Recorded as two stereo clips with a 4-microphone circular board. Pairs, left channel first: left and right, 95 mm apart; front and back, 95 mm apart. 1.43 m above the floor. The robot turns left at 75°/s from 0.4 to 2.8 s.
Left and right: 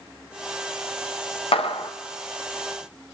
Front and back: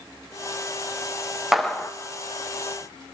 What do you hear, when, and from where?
1.5 s a clap: 95° left, 0.6 m; by 1.9 s 65° left, 0.6 m